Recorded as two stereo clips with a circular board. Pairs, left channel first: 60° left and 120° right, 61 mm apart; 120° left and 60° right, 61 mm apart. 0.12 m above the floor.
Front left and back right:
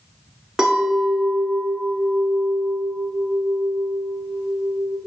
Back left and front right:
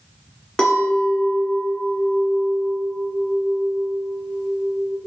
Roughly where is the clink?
Behind.